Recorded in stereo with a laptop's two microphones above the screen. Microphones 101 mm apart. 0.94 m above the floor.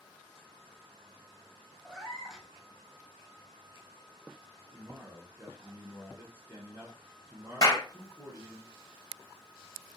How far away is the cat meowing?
About 0.8 m.